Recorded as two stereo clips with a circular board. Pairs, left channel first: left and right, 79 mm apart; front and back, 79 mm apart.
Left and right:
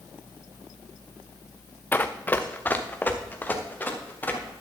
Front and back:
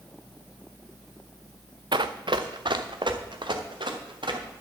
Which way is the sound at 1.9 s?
155° left.